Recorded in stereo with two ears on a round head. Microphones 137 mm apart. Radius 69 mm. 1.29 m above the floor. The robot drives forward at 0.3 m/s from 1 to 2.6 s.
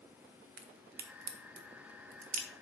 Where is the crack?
65° right (ahead or behind), 0.8 m; by 2.5 s 50° right (ahead or behind), 0.9 m.